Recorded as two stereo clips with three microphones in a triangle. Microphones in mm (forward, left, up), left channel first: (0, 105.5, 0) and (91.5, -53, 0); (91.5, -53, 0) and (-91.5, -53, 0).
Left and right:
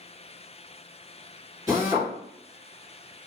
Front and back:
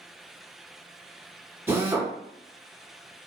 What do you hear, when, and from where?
1.7 s a drill: 115° right, 1.9 m